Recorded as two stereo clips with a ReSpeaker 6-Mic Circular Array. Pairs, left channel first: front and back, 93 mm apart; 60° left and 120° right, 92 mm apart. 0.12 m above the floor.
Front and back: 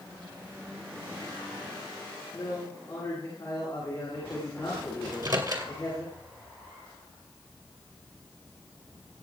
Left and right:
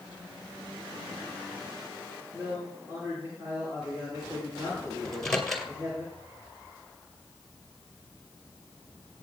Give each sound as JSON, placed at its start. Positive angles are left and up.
{"t": 2.3, "sound": "a man speaking", "azimuth_deg": -55, "distance_m": 9.5}
{"t": 5.0, "sound": "a microwave", "azimuth_deg": 145, "distance_m": 2.0}